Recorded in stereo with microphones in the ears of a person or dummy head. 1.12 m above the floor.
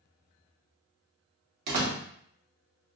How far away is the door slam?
About 1.1 m.